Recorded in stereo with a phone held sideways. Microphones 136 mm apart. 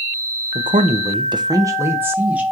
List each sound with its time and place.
0.6 s a man speaking: 70° right (ahead or behind), 0.5 m; by 2.4 s 10° right (ahead or behind), 1.2 m